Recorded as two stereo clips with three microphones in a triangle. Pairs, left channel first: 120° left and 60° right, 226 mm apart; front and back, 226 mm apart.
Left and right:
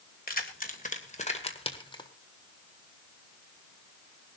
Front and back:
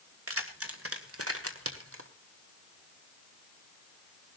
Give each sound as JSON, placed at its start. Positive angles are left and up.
{"t": 0.3, "sound": "keys jangling", "azimuth_deg": 170, "distance_m": 2.5}